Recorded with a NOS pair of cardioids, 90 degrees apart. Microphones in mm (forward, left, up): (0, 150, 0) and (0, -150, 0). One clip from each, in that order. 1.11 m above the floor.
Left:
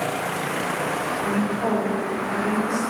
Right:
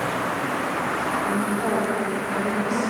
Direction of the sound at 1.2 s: 15° left.